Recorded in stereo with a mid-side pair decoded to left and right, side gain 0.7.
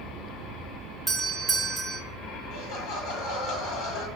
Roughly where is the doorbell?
Ahead.